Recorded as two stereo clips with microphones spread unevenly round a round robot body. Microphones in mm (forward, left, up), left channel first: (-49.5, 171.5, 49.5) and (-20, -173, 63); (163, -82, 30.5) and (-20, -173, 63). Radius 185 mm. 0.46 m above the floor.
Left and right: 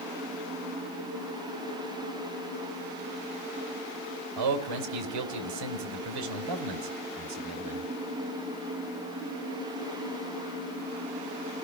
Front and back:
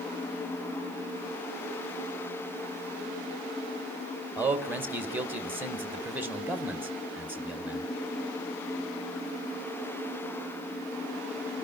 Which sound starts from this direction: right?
A man speaking, at 4.4 s.